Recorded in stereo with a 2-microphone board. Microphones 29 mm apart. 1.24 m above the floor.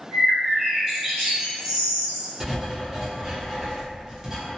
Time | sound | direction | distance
0.1 | a bird | 20° right (ahead or behind) | 1.0 m
2.4 | writing | 20° right (ahead or behind) | 0.8 m